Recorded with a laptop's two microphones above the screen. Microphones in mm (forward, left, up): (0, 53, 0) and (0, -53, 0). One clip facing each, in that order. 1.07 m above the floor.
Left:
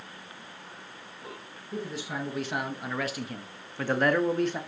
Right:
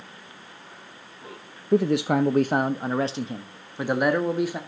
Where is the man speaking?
75° right (ahead or behind), 0.7 m; by 4.6 s 5° right (ahead or behind), 1.8 m.